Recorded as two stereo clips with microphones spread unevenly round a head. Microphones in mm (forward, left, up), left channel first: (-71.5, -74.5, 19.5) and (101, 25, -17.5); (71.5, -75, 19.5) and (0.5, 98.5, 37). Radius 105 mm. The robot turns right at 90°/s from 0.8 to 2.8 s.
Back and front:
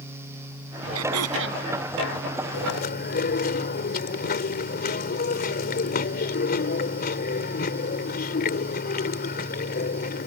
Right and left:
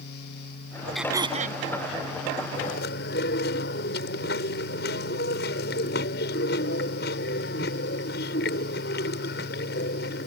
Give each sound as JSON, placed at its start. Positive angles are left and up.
{"t": 0.9, "sound": "throat clearing", "azimuth_deg": 20}
{"t": 2.5, "sound": "chewing", "azimuth_deg": -135}